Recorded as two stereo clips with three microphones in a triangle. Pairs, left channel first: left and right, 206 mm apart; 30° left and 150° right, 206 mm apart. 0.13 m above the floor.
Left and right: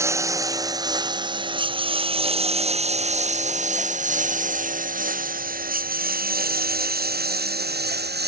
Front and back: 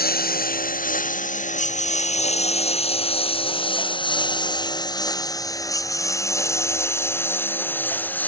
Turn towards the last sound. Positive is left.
turn(degrees=-55)